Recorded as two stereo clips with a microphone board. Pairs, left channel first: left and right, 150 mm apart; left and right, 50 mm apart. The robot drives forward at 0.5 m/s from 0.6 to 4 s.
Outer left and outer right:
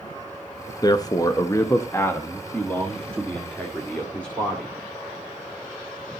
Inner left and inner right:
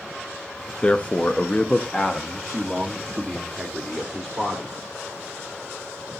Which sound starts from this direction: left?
A man speaking, at 0.8 s.